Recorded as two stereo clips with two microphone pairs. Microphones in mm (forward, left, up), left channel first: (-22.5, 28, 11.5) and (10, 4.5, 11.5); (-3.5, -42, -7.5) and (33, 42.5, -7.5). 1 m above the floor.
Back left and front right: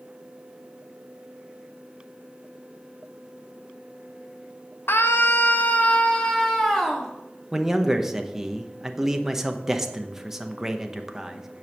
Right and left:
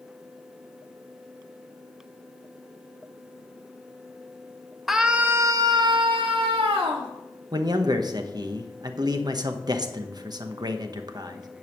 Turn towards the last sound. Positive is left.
turn(degrees=40)